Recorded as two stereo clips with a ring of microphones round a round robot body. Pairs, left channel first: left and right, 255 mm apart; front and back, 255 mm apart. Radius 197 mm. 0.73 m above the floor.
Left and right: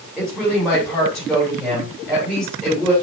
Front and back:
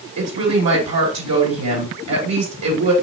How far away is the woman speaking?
About 3 m.